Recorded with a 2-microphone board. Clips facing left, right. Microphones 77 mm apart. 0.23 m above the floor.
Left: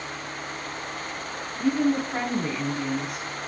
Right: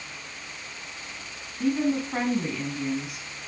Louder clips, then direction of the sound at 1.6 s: Left 2 dB; 5° right (ahead or behind).